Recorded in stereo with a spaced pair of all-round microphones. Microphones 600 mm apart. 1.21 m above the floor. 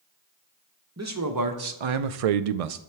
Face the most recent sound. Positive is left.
turn(degrees=-70)  # may be behind; listen again after turning